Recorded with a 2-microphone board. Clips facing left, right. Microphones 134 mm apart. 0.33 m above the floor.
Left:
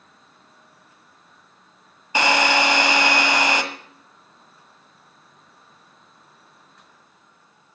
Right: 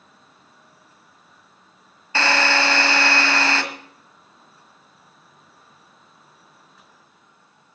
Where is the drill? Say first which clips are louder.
Left 2 dB; 15° left (ahead or behind), 1.7 m.